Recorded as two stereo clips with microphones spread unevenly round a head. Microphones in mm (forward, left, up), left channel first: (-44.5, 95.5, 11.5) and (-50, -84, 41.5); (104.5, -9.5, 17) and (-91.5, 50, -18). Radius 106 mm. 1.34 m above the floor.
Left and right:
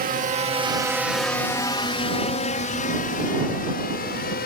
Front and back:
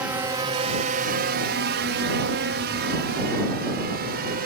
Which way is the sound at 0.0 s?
120° right.